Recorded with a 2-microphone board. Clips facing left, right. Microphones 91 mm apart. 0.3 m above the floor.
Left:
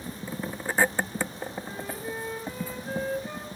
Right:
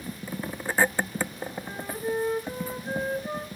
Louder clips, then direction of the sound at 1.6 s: Right 4 dB; 30° right (ahead or behind).